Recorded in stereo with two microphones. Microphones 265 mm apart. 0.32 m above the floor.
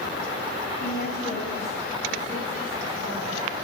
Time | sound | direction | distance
0.8 | a woman speaking | 40° left (ahead or behind) | 2.5 m